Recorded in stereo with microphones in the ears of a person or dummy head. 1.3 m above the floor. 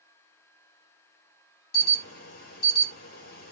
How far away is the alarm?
About 1.0 m.